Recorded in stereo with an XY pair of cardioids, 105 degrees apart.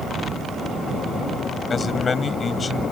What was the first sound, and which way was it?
A man speaking, 35° left.